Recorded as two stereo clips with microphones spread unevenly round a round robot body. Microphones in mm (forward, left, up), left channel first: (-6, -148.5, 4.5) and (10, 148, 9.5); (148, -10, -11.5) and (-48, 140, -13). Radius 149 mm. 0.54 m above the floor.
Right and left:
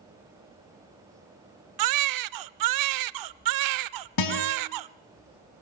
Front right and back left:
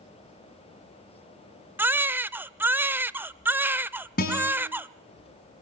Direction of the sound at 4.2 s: 100° right.